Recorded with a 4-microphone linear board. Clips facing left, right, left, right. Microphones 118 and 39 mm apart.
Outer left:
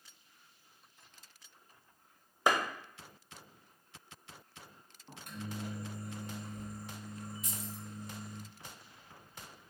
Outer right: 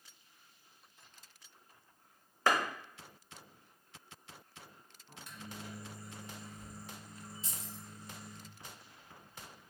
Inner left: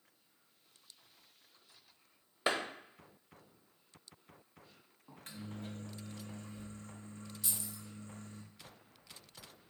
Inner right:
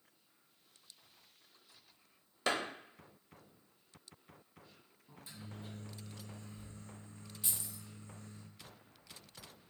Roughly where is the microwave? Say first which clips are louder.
Outer left 6 dB, inner left 4 dB; left.